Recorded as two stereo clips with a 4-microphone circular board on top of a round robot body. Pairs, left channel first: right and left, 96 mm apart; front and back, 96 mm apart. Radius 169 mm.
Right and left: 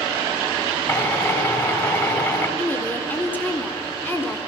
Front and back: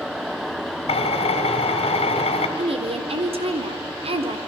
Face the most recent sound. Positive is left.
turn(degrees=-160)